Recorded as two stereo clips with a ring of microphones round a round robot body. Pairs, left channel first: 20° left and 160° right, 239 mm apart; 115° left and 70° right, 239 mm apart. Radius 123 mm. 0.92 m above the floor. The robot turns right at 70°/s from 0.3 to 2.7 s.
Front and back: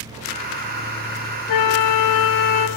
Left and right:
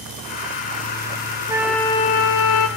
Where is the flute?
10° left, 0.8 m; by 2.7 s 90° left, 0.8 m.